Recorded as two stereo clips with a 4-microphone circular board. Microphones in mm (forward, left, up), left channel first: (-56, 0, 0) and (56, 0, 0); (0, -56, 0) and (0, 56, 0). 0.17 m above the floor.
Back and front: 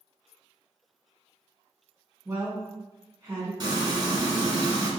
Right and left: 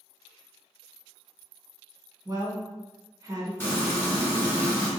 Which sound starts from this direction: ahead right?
Frying, at 3.6 s.